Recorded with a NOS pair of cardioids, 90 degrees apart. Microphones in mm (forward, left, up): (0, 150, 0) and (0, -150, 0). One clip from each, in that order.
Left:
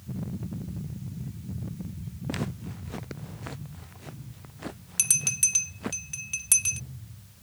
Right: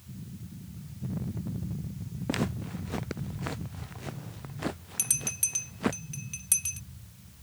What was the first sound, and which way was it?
Footsteps, 25° right.